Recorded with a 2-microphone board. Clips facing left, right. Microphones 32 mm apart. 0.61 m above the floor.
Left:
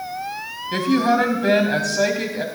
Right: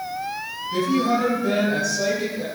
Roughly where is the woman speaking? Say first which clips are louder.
Left 3 dB; left.